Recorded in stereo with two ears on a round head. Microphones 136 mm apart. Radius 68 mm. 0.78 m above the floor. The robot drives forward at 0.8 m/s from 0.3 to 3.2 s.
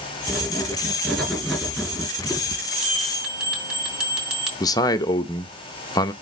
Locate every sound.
0.3 s writing: centre (ahead or behind), 4 m
2.8 s a bell: 5° right (ahead or behind), 4.5 m
4.6 s a man speaking: 25° left (ahead or behind), 0.5 m